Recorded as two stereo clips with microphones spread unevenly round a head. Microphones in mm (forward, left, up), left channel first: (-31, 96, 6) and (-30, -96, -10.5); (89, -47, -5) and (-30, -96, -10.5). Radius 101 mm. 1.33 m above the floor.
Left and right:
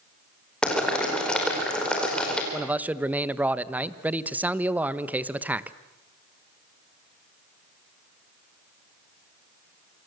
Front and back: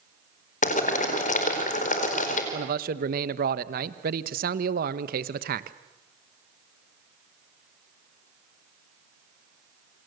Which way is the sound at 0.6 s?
5° left.